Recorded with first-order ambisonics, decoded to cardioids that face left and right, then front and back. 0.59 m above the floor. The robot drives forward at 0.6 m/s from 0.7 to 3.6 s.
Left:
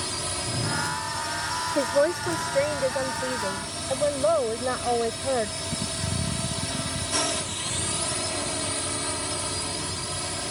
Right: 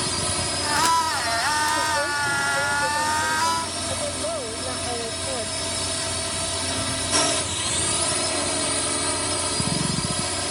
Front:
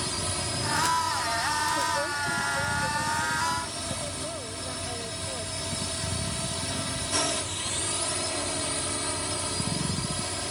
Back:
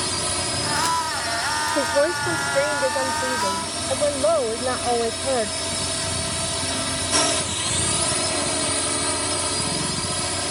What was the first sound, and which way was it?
A drone, 140° right.